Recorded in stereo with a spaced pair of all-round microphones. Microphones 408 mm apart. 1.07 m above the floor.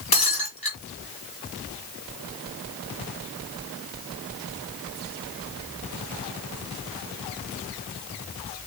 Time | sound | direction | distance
0.1 | breaking glass | 60° left (ahead or behind) | 3 m